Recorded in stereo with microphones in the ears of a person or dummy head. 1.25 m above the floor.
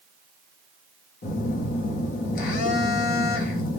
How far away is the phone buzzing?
About 0.8 m.